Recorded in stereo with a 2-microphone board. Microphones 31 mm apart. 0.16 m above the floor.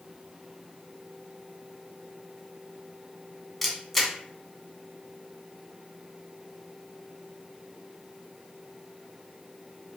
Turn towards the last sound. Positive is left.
turn(degrees=5)  # may be behind; listen again after turning